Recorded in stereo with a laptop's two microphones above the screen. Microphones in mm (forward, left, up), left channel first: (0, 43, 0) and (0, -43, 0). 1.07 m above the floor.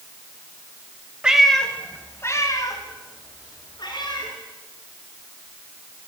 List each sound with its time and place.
1.2 s a cat meowing: 10° right (ahead or behind), 1.6 m; by 4.3 s 60° left (ahead or behind), 4.5 m